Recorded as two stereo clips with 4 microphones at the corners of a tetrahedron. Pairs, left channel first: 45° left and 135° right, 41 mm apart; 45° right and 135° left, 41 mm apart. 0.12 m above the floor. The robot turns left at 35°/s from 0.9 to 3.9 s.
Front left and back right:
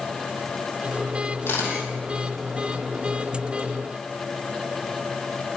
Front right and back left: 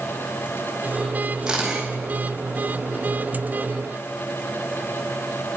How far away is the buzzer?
No buzzer in this recording.